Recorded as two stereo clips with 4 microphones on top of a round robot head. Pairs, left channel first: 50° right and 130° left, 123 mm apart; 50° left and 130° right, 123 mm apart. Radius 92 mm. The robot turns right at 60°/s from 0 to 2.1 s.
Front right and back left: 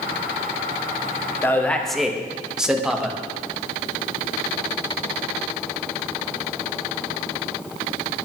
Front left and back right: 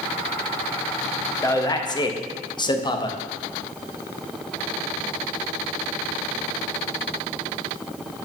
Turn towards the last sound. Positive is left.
turn(degrees=45)